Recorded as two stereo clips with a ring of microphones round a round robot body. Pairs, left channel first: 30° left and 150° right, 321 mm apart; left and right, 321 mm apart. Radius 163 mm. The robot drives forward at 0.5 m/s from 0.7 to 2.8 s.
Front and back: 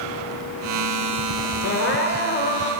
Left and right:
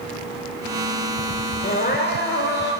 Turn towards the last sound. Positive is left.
turn(degrees=85)